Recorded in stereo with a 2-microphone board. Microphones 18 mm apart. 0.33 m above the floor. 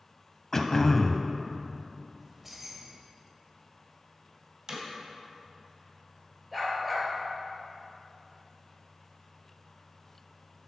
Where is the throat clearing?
20° left (ahead or behind), 0.6 m.